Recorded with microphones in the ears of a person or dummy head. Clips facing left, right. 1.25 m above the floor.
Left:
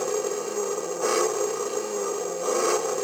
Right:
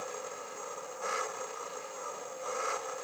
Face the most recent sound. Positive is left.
turn(degrees=90)